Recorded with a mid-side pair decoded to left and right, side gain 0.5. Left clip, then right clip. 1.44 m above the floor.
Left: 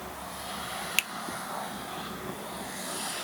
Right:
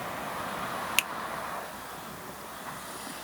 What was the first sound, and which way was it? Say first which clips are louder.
A finger snap: even; straight ahead.